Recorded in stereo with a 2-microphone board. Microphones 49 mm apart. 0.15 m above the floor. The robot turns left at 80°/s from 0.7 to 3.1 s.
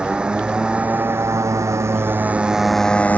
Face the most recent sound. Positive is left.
turn(degrees=150)